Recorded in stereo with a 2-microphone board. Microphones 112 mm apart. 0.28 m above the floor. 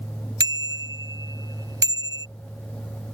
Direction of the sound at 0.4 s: 35° right (ahead or behind).